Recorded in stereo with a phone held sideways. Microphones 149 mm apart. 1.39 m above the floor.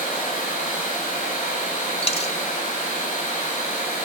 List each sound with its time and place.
0.0 s running water: 55° left (ahead or behind), 7.5 m
2.0 s a dropped coin: 45° left (ahead or behind), 1.3 m